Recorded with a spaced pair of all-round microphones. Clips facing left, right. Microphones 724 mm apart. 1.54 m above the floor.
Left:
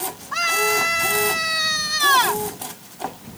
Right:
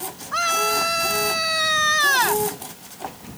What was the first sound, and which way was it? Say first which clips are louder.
A scream: left 3 dB; 30° left (ahead or behind).